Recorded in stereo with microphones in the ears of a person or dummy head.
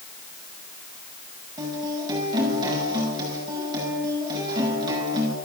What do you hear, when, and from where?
1.6 s a guitar: 25° right (ahead or behind), 7.5 m